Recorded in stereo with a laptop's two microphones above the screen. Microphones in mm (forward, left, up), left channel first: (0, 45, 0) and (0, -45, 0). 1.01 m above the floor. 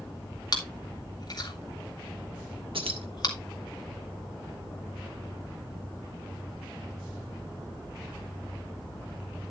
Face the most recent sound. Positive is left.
turn(degrees=-80)